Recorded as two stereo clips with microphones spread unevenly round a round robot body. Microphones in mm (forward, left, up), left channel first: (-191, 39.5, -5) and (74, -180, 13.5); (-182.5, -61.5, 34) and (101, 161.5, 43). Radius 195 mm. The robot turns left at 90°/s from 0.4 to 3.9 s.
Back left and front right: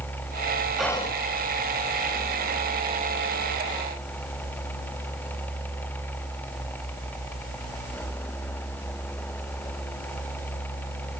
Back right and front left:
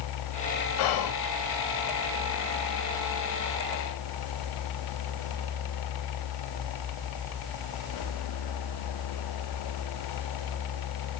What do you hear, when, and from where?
0.8 s whispering: 130° right, 0.7 m; by 1.1 s 160° right, 0.7 m